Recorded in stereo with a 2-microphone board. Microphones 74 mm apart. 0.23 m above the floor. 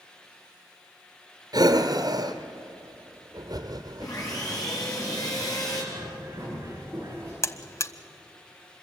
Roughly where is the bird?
Right.